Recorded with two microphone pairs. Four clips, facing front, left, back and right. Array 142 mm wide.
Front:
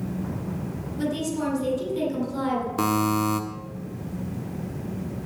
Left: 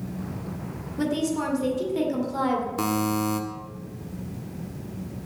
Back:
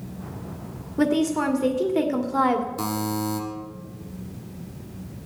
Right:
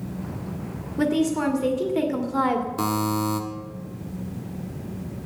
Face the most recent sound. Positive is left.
turn(degrees=0)